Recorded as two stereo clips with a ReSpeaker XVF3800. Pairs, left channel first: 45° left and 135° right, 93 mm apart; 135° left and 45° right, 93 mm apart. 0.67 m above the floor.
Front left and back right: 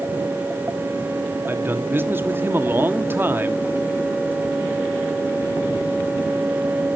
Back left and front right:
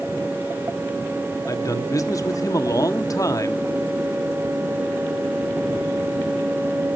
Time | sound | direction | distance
1.5 | a man speaking | 170° left | 1.4 m